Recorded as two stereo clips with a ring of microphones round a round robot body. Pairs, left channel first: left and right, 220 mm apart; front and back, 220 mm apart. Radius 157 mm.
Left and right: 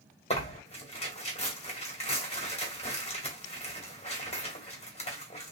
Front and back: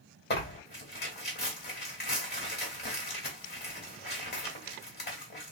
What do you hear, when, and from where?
0.3 s tearing paper: 35° left, 1.8 m